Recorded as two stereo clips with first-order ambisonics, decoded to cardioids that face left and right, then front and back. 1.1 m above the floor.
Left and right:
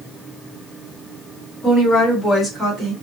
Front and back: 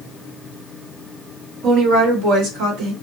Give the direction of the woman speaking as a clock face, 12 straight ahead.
7 o'clock.